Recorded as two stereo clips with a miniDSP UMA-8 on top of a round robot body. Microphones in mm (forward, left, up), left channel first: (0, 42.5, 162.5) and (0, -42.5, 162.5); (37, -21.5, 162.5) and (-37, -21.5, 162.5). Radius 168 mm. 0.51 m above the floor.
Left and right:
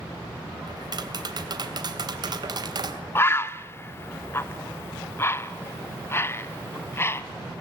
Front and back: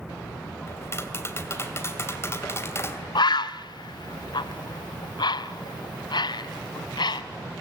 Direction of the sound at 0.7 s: 55° right.